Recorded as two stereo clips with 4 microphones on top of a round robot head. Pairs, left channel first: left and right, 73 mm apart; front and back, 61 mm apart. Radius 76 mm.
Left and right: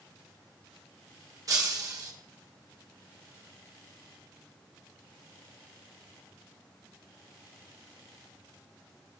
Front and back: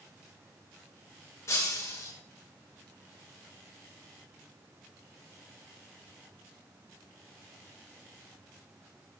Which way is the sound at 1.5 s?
50° right.